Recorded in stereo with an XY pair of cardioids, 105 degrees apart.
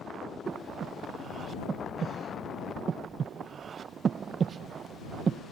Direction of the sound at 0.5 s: 45° right.